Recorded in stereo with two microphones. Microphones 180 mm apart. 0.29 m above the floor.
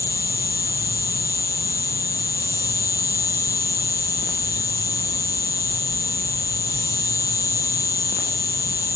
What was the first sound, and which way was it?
An insect, 20° left (ahead or behind).